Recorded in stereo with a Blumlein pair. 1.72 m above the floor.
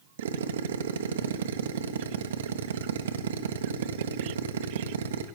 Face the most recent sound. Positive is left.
turn(degrees=-65)